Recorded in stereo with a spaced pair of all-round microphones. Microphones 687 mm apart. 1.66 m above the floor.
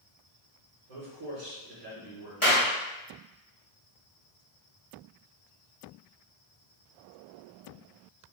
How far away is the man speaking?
About 1.1 m.